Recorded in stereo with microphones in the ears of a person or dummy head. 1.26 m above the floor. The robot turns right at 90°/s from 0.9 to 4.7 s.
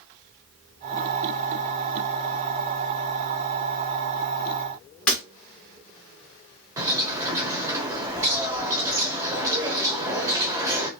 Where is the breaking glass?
5° left (ahead or behind), 0.5 m.